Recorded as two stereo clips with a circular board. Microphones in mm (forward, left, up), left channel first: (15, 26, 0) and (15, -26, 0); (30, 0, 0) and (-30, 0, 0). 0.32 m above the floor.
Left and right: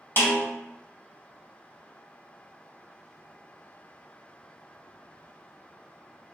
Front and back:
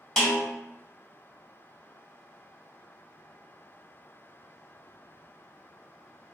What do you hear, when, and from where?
0.2 s a snare drum: 85° left, 1.9 m